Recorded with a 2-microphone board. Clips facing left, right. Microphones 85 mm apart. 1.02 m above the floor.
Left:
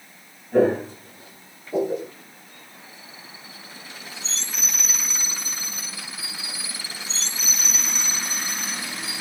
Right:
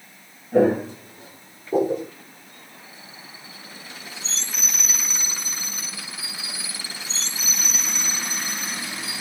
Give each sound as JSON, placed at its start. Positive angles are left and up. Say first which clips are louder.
{"t": 0.5, "sound": "footsteps", "louder": "right 1 dB", "side_deg": -5, "distance_m": 1.1}